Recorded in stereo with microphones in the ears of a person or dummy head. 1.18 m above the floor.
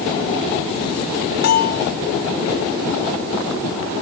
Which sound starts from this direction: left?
A bell, at 1.4 s.